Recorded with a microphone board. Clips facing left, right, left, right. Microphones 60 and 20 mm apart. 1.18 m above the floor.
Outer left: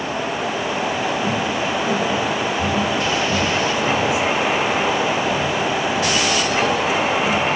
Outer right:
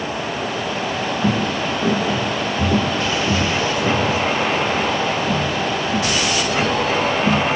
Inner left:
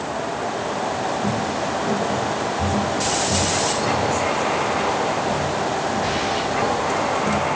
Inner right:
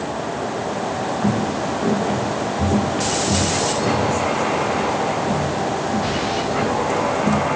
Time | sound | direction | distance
1.2 | footsteps | 60° right (ahead or behind) | 7 m